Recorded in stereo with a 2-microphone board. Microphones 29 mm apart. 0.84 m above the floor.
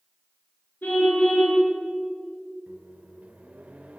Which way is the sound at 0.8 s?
90° left.